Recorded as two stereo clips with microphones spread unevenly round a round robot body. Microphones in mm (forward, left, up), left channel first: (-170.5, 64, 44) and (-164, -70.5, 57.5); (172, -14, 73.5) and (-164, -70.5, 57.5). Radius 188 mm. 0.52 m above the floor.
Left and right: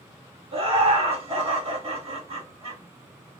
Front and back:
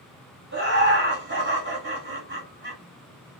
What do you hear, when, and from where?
0.5 s laughter: 125° right, 1.9 m